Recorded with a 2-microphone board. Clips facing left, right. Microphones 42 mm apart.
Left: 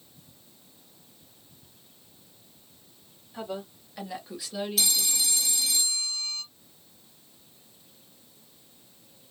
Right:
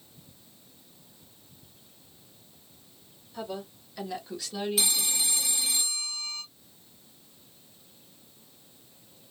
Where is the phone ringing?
20° right (ahead or behind), 0.7 m.